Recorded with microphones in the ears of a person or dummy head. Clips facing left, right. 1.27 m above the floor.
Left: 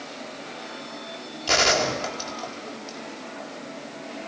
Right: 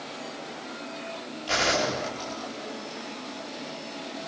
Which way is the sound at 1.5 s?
65° left (ahead or behind).